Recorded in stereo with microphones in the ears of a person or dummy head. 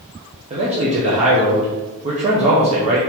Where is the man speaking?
35° right (ahead or behind), 0.8 m.